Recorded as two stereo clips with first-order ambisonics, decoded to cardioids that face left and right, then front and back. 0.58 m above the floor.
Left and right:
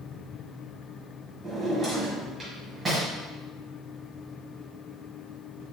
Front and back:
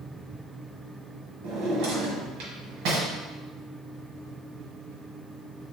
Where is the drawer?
165° right, 1.6 m.